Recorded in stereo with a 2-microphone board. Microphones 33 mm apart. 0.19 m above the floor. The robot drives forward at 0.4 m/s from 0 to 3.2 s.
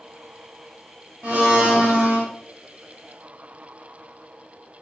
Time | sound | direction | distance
1.2 | a blender | 50° right (ahead or behind) | 1.4 m